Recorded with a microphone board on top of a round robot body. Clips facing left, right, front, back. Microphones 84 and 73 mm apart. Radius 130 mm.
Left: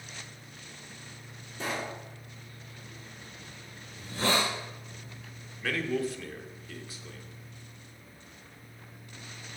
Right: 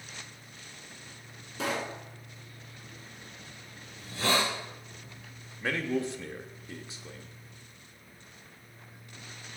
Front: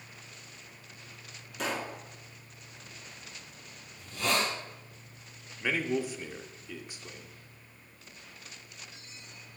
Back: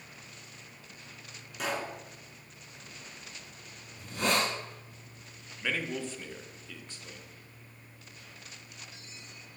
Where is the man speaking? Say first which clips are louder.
Even, front 4 dB; 65° right, 1.3 m.